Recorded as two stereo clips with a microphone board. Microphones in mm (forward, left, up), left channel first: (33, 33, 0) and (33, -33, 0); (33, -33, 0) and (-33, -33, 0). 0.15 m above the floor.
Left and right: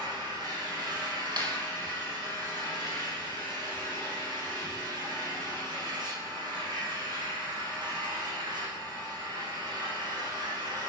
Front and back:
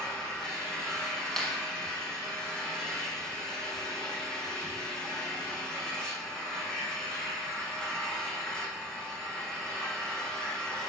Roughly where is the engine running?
Right.